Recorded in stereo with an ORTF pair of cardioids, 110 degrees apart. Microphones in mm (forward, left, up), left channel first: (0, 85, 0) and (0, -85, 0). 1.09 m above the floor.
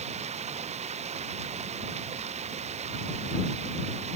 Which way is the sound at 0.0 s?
40° right.